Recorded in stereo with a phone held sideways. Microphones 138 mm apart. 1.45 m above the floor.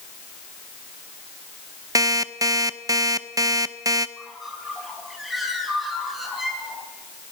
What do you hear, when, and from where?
1.9 s an alarm clock: 25° right (ahead or behind), 0.6 m
4.2 s a bird: centre (ahead or behind), 3.5 m